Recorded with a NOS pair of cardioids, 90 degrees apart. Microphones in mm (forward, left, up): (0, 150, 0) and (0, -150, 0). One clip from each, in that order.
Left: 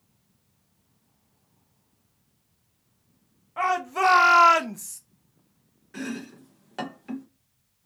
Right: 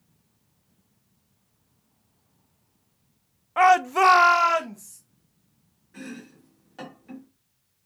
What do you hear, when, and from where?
3.6 s a shout: 45° right, 0.7 m; by 5.0 s 50° left, 0.7 m
5.9 s chopping: 55° left, 1.1 m